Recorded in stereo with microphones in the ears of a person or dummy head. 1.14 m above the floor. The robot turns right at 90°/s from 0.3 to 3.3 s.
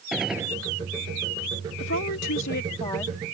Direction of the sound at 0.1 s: 5° right (ahead or behind).